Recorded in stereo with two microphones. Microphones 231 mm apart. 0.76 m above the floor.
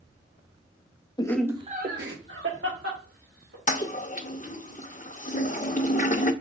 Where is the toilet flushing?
35° left (ahead or behind), 0.5 m.